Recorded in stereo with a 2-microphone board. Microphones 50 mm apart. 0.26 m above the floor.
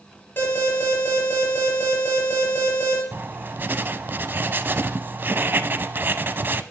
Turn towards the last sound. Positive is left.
turn(degrees=-40)  # may be behind; listen again after turning